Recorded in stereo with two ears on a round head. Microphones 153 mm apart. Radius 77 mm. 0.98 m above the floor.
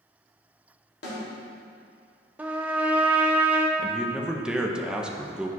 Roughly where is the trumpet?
Centre.